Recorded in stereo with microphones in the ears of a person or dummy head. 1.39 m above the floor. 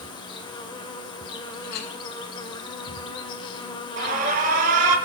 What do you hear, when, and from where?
0.0 s an insect: 25° left (ahead or behind), 1.8 m
1.6 s a clink: 60° left (ahead or behind), 2.5 m
4.0 s an alarm: 45° right (ahead or behind), 2.5 m